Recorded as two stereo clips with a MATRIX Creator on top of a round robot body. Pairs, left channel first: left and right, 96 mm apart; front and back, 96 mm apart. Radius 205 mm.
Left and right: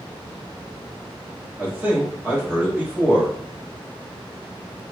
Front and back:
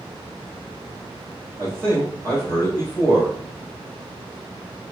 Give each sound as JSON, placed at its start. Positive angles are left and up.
{"t": 1.6, "sound": "a man speaking", "azimuth_deg": -145, "distance_m": 1.4}